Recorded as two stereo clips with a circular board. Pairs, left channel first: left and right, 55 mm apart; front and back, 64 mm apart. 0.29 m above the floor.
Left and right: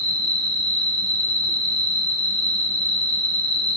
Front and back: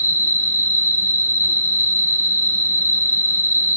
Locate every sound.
0.0 s an insect: 10° right, 2.5 m